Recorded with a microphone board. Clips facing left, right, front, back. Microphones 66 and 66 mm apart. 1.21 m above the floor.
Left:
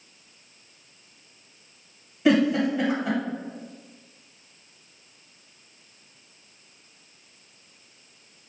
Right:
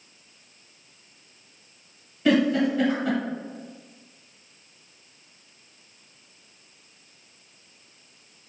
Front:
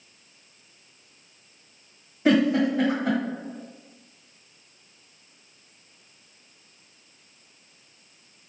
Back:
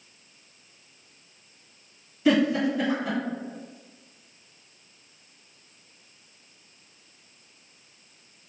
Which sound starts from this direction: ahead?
A giggle, at 2.2 s.